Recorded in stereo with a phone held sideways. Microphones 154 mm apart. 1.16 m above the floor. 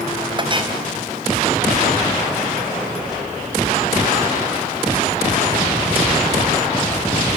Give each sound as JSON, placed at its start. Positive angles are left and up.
{"t": 0.4, "sound": "a clink", "side_deg": -35, "distance_m": 4.5}